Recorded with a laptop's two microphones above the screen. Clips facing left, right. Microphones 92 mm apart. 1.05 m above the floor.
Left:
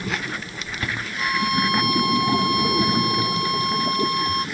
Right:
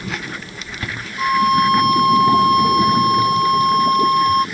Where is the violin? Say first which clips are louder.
Right 9 dB; 40° right (ahead or behind).